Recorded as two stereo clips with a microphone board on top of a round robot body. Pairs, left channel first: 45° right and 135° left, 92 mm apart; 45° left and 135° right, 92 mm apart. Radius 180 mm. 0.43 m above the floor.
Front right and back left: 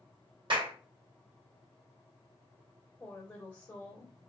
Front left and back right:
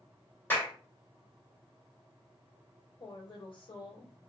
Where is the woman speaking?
30° left, 2.5 m.